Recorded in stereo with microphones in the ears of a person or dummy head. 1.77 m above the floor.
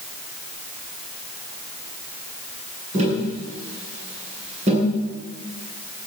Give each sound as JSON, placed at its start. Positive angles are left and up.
{"t": 2.9, "sound": "tapping", "side_deg": -35, "distance_m": 9.5}